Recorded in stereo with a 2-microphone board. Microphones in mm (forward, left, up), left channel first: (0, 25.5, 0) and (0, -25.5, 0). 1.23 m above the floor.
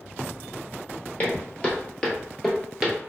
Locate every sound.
1.2 s footsteps: 30° left (ahead or behind), 1.6 m; by 3.0 s 10° right (ahead or behind), 1.2 m